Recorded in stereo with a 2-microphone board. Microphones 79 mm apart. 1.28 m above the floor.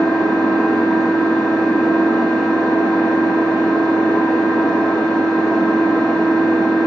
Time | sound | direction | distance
0.0 | an engine running | 5° left (ahead or behind) | 0.8 m